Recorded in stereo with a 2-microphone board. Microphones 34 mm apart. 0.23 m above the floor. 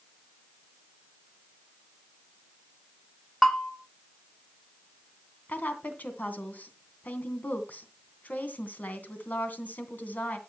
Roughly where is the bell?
Centre.